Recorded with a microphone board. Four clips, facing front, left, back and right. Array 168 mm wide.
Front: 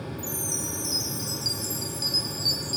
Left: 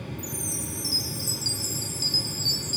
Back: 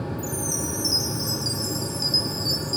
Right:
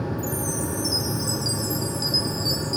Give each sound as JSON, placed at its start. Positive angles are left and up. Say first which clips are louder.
{"t": 0.2, "sound": "a chime", "louder": "right 9 dB, back 5 dB", "azimuth_deg": 110, "distance_m": 0.5}